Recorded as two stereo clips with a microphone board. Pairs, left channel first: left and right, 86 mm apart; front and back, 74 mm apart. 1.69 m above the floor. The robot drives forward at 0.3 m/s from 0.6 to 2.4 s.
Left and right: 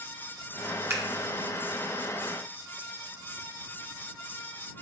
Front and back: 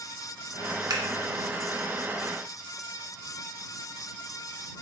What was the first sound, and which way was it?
Scissors, 150° right.